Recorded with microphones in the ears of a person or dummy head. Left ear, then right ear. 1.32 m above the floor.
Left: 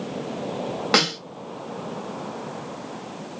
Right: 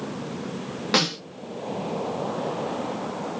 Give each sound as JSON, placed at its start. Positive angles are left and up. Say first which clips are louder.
{"t": 0.9, "sound": "a snare drum", "louder": "left 2 dB", "side_deg": 30, "distance_m": 1.7}